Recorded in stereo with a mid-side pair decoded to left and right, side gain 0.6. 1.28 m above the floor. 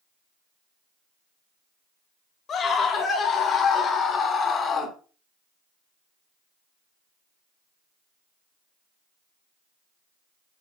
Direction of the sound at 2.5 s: 45° left.